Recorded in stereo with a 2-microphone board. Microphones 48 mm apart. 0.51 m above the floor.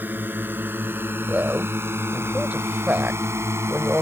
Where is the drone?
45° right (ahead or behind); by 4.0 s 70° right (ahead or behind).